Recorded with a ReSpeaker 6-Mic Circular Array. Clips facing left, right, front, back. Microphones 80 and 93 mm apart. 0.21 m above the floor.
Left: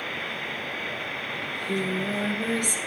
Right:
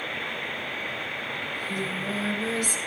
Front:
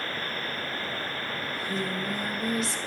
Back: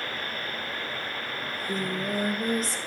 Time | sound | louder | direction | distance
1.4 | singing | left 5 dB, back 1 dB | 135° left | 4.5 m